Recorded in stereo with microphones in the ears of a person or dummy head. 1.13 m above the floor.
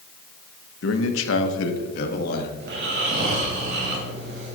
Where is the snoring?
70° right (ahead or behind), 2.5 m.